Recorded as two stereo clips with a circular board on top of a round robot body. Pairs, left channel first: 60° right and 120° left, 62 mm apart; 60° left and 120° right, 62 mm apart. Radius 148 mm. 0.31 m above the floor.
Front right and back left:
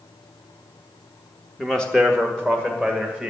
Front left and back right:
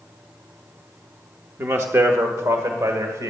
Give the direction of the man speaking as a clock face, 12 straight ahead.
5 o'clock.